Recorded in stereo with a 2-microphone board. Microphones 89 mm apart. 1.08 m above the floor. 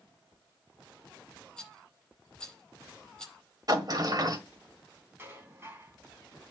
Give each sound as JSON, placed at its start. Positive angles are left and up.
{"t": 1.6, "sound": "a rattle", "side_deg": 10, "distance_m": 8.5}
{"t": 3.7, "sound": "a sliding door", "side_deg": -50, "distance_m": 1.7}
{"t": 5.2, "sound": "dishes clattering", "side_deg": -25, "distance_m": 6.0}